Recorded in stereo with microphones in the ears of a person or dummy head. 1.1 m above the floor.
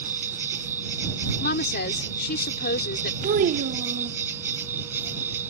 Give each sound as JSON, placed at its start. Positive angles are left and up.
{"t": 0.0, "sound": "an insect", "side_deg": -15}
{"t": 1.4, "sound": "a woman speaking", "side_deg": 55}
{"t": 3.2, "sound": "a child speaking", "side_deg": -50}